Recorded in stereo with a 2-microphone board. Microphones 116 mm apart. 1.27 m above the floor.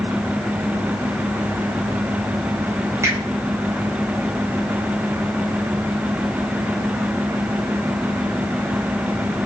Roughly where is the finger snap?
Right.